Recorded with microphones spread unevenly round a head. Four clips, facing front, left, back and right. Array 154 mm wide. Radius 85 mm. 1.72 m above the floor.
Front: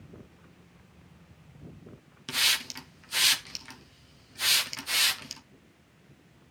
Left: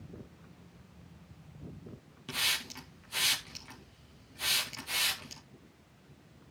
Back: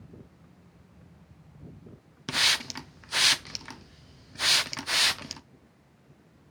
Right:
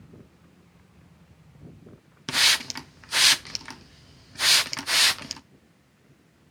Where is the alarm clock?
I don't hear an alarm clock.